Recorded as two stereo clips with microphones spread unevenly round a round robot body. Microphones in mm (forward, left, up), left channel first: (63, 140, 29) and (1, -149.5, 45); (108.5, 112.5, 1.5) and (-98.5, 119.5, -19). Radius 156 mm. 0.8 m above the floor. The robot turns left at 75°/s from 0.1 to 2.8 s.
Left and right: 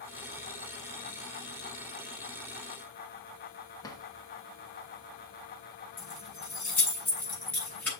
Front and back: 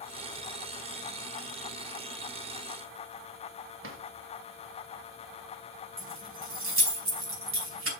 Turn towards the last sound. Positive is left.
turn(degrees=165)